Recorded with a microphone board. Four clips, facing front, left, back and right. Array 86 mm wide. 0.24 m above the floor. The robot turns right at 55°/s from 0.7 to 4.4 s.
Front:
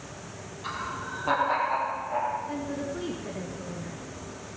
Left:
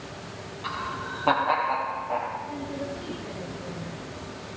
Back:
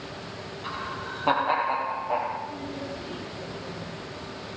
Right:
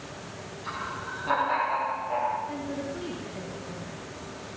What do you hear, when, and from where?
0.6 s laughter: 105° left, 7.5 m; by 2.4 s 165° right, 7.5 m
2.5 s a woman speaking: 50° right, 3 m; by 4.0 s 35° left, 3 m